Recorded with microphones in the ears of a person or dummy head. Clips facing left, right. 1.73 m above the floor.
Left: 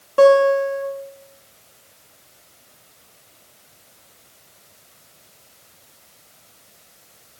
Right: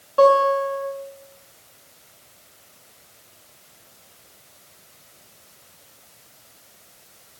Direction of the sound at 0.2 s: 30° left (ahead or behind).